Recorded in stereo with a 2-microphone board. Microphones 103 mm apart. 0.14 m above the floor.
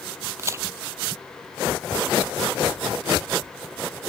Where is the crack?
30° right (ahead or behind).